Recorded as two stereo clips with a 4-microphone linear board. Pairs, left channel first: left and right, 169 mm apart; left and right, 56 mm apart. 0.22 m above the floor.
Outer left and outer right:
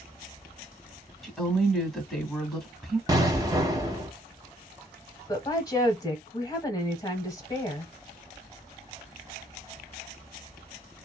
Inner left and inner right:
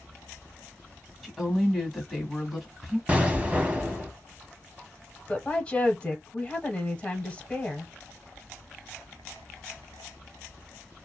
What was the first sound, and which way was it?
A woman speaking, centre (ahead or behind).